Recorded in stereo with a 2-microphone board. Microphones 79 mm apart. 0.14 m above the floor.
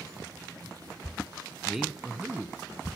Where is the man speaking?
Centre (ahead or behind), 1.1 m; by 2.9 s 30° right (ahead or behind), 1.1 m.